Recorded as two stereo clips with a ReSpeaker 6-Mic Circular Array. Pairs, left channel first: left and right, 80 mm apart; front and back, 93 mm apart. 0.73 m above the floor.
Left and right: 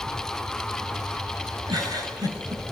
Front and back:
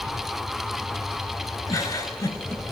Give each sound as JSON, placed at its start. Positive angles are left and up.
{"t": 1.7, "sound": "a giggle", "azimuth_deg": -55, "distance_m": 4.5}